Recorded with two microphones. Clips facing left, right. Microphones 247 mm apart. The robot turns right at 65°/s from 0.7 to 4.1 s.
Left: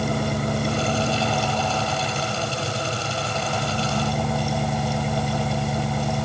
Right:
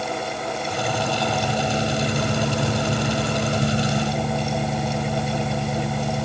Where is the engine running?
135° left; by 6.2 s 5° right.